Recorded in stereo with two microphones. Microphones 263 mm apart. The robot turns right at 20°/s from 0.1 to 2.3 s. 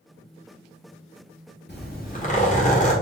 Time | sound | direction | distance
1.7 | a zipper | 40° left (ahead or behind) | 1.3 m